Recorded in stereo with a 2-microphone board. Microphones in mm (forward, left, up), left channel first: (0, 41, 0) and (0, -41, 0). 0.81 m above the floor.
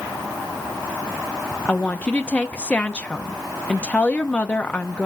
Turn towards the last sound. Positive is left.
turn(degrees=15)  # may be behind; listen again after turning